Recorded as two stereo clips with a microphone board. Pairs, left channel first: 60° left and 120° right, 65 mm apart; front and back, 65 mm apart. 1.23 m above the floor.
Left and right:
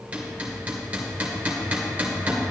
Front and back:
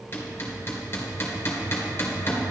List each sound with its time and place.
0.1 s hammering: 55° right, 2.5 m